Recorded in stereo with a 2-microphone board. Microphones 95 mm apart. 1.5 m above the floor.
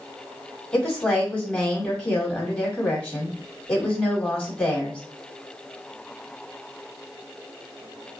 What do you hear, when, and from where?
0.7 s a woman speaking: 15° left (ahead or behind), 1.9 m